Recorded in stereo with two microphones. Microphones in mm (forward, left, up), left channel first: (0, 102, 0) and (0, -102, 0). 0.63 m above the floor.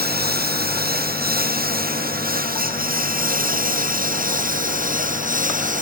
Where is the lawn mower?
50° right (ahead or behind); by 5.8 s 40° right (ahead or behind).